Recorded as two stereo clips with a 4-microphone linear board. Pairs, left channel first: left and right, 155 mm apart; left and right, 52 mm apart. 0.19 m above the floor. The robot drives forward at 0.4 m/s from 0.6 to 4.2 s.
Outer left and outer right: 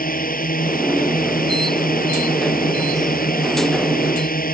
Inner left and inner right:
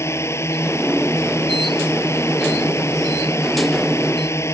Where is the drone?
70° left (ahead or behind).